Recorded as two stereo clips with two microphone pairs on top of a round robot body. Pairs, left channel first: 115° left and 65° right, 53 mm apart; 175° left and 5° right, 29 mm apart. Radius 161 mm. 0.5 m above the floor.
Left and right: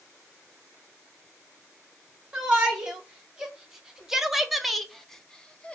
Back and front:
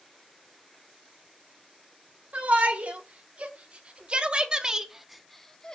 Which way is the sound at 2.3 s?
10° left.